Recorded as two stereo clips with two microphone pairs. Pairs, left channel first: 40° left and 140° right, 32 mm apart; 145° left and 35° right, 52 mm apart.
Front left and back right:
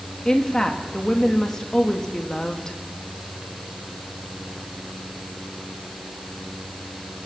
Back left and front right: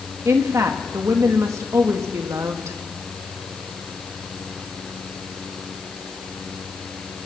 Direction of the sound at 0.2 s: 25° right.